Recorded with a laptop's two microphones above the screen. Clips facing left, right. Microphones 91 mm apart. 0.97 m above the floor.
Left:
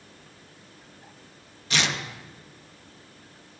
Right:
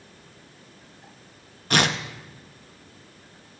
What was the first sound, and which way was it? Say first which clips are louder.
Tearing paper: right 5 dB; 50° right (ahead or behind).